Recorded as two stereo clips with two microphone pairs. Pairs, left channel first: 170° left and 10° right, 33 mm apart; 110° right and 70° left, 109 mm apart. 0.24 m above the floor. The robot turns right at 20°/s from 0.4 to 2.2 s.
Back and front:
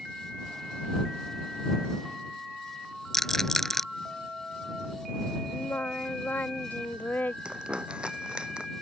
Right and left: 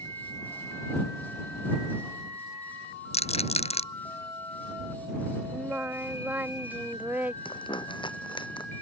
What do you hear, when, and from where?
3.1 s a rattle: 110° right
5.5 s singing: 145° left
7.5 s crumpling: 65° right